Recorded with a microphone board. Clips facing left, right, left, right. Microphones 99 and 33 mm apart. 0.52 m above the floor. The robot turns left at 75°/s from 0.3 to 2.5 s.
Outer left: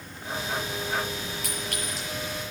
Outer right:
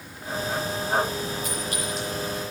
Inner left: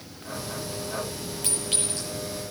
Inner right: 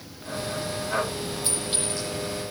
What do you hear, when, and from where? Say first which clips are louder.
1.4 s a clink: outer right 4 dB, inner right 2 dB; 75° left (ahead or behind), 8 m; by 2.1 s 25° left (ahead or behind), 8 m